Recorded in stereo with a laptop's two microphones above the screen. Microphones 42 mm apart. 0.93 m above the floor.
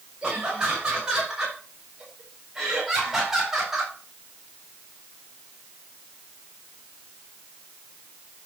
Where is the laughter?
15° right (ahead or behind), 5 m; by 4.0 s 5° right (ahead or behind), 3.5 m.